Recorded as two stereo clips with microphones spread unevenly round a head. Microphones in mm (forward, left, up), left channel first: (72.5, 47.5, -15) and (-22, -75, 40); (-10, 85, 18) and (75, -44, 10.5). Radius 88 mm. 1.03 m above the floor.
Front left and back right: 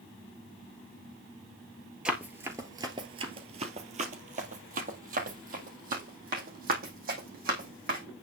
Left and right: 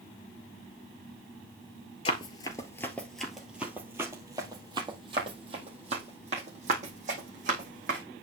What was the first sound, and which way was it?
Running footsteps, 170° left.